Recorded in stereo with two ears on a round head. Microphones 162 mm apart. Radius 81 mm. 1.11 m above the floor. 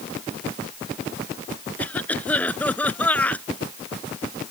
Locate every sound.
1.8 s a cough: 10° left (ahead or behind)